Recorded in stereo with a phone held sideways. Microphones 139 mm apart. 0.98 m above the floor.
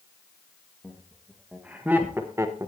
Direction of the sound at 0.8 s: 5° right (ahead or behind).